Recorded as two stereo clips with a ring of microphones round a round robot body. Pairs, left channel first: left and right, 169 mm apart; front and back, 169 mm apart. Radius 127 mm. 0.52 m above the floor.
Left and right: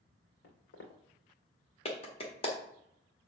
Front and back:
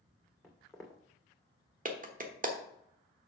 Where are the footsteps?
90° left, 2.5 m.